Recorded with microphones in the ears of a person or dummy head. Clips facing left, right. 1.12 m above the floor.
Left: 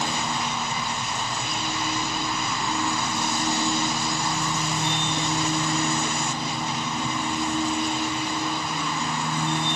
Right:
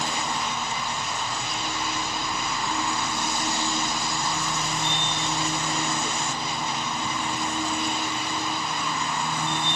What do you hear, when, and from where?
0.0 s a machine running: 10° left (ahead or behind)